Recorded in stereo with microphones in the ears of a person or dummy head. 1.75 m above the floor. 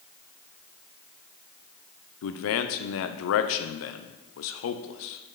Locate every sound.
2.2 s a man speaking: 65° left (ahead or behind), 0.7 m